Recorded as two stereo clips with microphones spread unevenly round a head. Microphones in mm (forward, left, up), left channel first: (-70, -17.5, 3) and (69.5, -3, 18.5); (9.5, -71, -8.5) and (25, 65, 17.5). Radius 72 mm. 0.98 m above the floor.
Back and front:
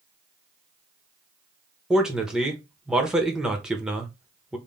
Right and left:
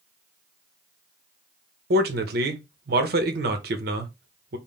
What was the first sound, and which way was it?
A man speaking, 95° left.